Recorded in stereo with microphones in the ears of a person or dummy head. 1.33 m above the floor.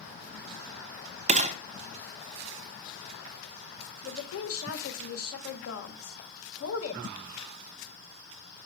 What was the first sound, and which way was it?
A gunshot, 35° right (ahead or behind).